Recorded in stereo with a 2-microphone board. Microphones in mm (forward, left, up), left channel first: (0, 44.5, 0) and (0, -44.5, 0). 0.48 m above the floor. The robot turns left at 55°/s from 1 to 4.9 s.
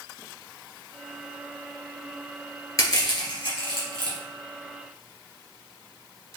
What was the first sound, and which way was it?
Crushing, 40° left (ahead or behind).